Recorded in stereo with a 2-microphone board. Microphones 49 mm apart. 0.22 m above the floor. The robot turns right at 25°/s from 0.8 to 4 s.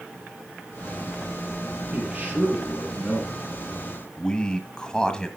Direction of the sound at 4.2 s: 15° left (ahead or behind).